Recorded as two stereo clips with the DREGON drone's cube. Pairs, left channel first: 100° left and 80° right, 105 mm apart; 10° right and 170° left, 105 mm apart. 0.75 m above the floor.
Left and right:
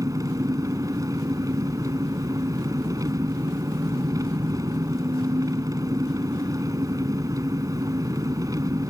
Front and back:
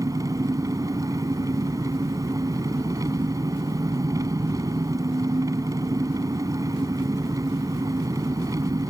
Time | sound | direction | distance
0.0 | an engine running | 135° right | ?